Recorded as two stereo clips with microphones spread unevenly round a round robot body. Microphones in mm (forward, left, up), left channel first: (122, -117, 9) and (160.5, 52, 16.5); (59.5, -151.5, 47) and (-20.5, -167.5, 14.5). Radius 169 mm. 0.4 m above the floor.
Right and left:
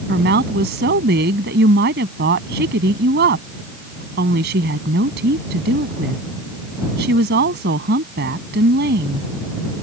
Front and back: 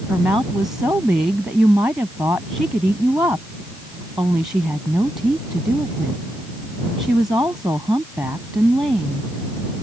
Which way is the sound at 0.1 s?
110° left.